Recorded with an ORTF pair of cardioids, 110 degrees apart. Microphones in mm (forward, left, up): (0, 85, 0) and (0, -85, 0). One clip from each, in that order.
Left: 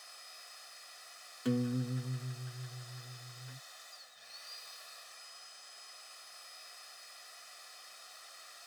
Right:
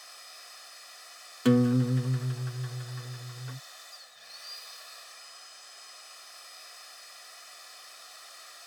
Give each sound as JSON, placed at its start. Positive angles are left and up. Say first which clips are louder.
{"t": 0.0, "sound": "a machine running", "louder": "right 4 dB", "azimuth_deg": -30}
{"t": 1.4, "sound": "a guitar", "louder": "right 11 dB", "azimuth_deg": -50}